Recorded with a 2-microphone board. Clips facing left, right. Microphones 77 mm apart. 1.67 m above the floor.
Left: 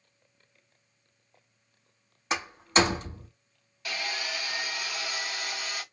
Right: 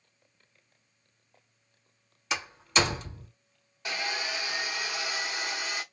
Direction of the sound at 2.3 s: 40° left (ahead or behind).